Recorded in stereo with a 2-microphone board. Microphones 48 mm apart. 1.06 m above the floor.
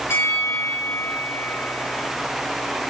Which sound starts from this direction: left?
A bell, at 0.1 s.